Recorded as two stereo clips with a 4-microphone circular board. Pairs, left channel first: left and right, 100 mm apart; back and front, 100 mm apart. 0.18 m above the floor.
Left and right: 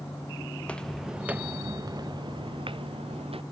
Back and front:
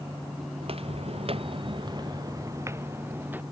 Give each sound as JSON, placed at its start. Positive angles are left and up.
{"t": 0.6, "sound": "footsteps", "azimuth_deg": 20}